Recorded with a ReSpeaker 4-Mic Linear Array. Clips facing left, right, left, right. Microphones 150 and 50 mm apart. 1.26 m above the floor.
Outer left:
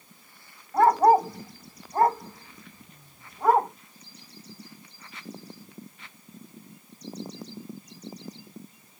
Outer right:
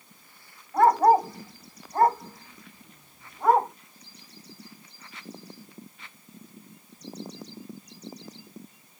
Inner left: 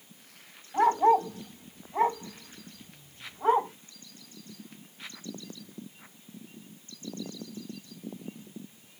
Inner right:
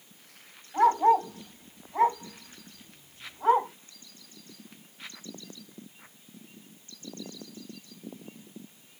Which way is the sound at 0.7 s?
10° left (ahead or behind).